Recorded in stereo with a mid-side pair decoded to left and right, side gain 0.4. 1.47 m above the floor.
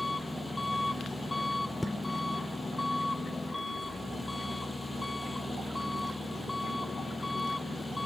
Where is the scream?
I don't hear a scream.